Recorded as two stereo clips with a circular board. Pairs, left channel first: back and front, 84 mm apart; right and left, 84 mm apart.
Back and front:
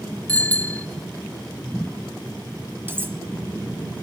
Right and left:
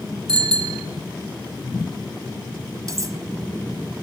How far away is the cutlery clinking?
About 1.2 m.